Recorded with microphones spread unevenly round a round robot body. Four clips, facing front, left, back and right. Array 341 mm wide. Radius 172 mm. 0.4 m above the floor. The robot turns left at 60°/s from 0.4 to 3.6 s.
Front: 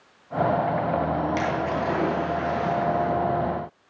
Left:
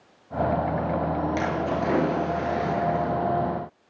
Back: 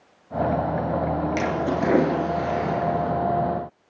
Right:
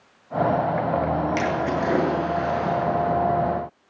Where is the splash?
135° right, 8 m; by 3.1 s 120° left, 8 m.